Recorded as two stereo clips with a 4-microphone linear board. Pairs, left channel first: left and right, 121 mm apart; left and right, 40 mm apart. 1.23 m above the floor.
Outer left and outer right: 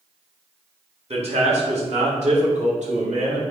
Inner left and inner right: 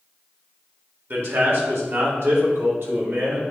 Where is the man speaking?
60° right (ahead or behind), 1.9 m; by 3.4 s 85° right, 2.5 m.